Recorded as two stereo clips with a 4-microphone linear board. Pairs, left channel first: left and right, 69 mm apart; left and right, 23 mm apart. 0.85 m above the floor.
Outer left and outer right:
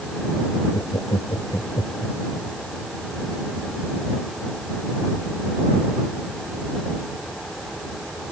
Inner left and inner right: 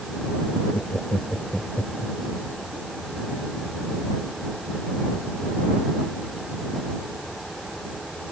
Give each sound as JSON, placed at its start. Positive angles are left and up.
{"t": 0.7, "sound": "laughter", "side_deg": 75}